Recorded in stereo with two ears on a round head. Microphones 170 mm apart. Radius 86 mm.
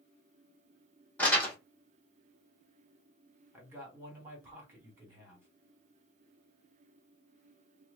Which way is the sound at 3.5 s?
15° right (ahead or behind).